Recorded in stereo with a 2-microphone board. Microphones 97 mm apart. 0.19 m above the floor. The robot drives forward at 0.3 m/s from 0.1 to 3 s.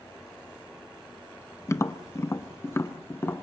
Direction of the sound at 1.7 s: 30° left (ahead or behind).